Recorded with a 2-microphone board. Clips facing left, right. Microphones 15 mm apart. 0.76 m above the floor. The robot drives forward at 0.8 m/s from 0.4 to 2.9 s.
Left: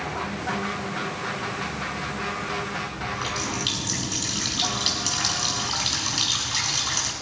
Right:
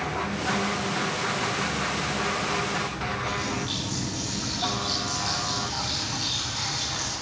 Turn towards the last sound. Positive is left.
turn(degrees=85)